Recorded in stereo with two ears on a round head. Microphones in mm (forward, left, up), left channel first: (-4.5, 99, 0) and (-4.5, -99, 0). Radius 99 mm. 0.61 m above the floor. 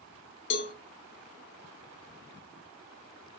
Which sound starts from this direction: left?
A cowbell, at 0.5 s.